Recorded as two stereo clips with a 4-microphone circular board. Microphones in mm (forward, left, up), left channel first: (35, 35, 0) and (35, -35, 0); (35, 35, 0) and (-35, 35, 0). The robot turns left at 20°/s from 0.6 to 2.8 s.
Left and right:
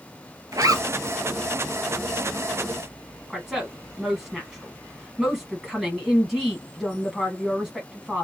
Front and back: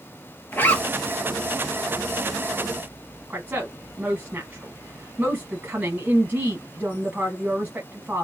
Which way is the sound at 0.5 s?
60° right.